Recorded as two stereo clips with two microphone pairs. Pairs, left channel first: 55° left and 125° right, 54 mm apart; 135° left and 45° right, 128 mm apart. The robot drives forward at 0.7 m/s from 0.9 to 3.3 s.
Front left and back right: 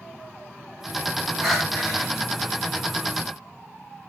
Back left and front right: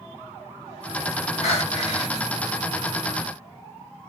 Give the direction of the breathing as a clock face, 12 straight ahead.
7 o'clock.